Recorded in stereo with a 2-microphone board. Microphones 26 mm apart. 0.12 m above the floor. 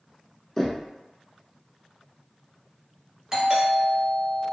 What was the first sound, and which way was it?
Knocking, 10° left (ahead or behind).